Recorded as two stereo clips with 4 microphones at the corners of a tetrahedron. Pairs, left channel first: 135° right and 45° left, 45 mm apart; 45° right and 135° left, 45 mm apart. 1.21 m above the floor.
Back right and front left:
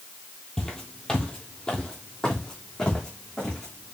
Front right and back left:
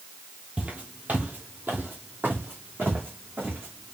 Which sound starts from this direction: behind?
Footsteps, at 0.6 s.